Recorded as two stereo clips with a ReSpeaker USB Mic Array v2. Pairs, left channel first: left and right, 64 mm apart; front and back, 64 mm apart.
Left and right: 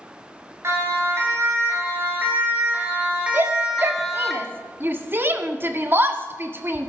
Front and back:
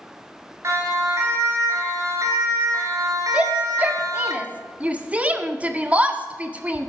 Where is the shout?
120° right, 1.5 m.